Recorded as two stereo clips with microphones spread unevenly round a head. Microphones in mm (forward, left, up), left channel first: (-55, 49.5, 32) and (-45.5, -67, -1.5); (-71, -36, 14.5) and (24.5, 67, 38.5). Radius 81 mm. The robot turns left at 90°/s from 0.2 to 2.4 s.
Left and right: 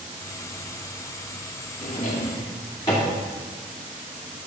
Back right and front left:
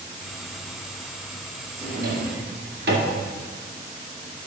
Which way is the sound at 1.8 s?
90° left.